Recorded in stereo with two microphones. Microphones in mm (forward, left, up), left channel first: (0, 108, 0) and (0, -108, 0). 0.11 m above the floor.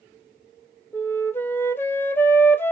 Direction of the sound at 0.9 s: 10° left (ahead or behind).